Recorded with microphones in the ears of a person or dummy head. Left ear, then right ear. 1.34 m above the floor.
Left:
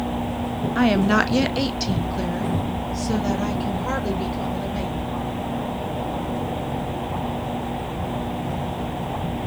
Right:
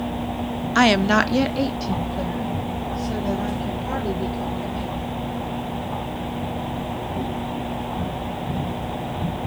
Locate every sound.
0.8 s a woman speaking: 45° right (ahead or behind), 0.8 m; by 5.1 s 60° left (ahead or behind), 5.5 m